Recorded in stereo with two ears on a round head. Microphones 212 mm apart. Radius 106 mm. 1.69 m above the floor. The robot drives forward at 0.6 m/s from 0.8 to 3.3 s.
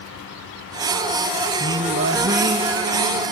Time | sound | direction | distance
1.6 | singing | 55° right (ahead or behind) | 1.3 m